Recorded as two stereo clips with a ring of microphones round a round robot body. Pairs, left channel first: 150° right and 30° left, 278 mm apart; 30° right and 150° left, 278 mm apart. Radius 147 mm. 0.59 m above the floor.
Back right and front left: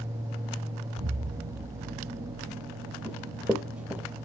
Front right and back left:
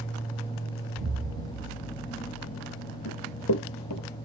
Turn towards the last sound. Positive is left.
turn(degrees=-55)